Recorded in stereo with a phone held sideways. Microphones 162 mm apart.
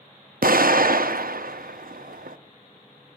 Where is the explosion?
70° right (ahead or behind), 0.5 m.